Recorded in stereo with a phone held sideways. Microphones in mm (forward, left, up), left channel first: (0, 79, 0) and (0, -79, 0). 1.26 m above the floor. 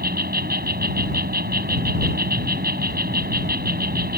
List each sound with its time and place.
0.0 s an insect: 80° right